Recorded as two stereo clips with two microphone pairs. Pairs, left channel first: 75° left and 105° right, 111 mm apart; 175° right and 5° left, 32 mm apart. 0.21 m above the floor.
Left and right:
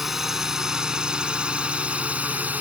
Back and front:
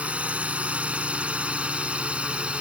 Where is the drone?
20° right; by 2.6 s 35° right.